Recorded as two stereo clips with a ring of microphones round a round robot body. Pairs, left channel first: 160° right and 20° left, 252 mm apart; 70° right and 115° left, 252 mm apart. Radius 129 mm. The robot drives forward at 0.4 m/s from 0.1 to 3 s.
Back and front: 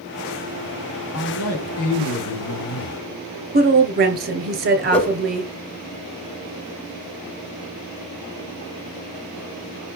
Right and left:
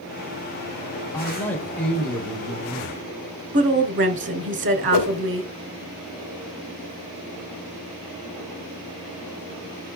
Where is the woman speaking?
75° left, 2 m.